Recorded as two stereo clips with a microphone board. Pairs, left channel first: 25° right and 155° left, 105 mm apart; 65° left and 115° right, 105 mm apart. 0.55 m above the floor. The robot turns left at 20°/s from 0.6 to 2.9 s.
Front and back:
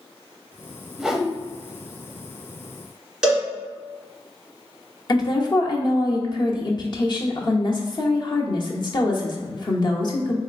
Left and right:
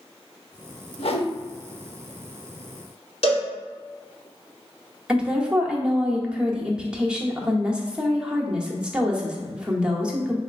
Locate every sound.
1.0 s a whoosh: 75° left, 0.5 m; by 1.3 s 70° left, 0.5 m
3.2 s a cowbell: 75° left, 1.6 m
5.1 s a woman speaking: 35° right, 0.9 m